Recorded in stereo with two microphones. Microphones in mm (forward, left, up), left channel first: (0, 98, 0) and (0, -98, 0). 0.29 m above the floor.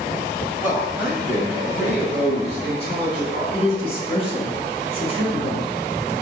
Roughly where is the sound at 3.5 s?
Left.